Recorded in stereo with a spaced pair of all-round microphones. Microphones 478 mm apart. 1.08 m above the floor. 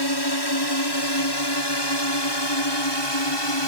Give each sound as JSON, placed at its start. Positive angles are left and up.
{"t": 0.0, "sound": "a drone", "side_deg": 55}